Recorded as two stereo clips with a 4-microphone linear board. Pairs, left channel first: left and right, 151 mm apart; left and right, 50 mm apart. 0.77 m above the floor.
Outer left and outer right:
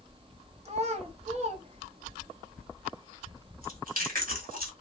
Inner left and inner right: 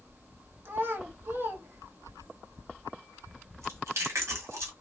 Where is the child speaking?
45° right (ahead or behind), 0.8 m.